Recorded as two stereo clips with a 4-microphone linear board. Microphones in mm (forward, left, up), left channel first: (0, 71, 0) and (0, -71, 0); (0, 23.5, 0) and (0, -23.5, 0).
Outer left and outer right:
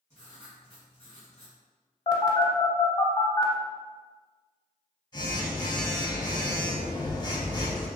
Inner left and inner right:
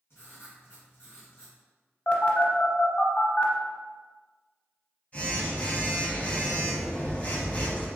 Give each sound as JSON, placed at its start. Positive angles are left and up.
{"t": 0.1, "sound": "writing", "side_deg": 50, "distance_m": 1.8}
{"t": 2.1, "sound": "a phone buzzing", "side_deg": 30, "distance_m": 0.6}